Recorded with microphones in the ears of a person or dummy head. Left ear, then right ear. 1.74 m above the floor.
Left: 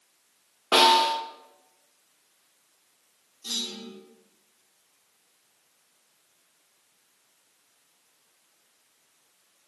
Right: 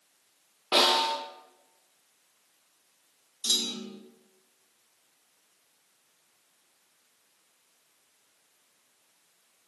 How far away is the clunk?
About 0.7 m.